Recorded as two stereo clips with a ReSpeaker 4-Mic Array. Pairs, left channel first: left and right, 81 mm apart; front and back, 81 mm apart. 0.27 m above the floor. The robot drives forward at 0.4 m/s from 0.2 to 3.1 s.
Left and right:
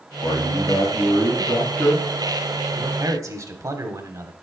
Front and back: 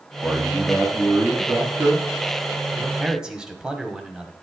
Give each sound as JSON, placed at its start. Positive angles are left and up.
{"t": 0.2, "sound": "a man speaking", "azimuth_deg": 110, "distance_m": 2.5}
{"t": 2.8, "sound": "a man speaking", "azimuth_deg": -95, "distance_m": 1.2}